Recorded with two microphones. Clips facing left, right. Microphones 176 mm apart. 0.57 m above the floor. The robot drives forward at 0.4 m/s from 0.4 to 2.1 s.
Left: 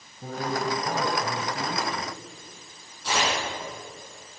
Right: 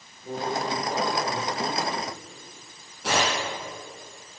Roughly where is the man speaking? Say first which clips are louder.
Even; left.